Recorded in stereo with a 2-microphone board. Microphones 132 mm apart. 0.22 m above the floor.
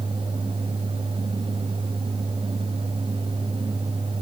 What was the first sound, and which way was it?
Only background noise.